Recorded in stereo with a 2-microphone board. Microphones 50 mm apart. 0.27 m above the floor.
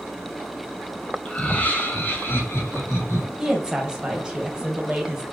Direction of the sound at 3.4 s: 15° right (ahead or behind).